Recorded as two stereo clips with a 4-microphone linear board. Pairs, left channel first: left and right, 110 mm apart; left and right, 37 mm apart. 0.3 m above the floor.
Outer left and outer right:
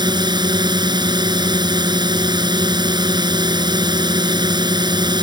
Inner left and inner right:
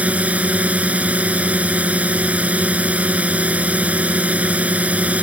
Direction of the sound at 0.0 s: 45° right (ahead or behind).